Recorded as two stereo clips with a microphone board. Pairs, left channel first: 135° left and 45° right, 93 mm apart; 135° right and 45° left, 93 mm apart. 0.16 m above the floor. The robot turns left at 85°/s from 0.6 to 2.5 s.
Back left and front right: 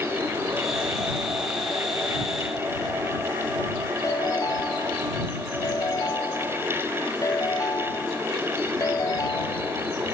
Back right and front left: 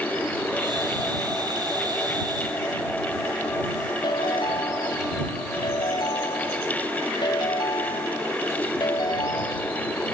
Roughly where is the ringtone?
Behind.